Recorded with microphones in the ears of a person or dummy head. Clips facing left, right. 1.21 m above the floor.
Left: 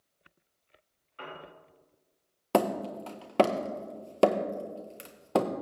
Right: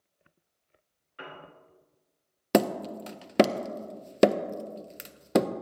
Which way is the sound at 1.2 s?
20° right (ahead or behind).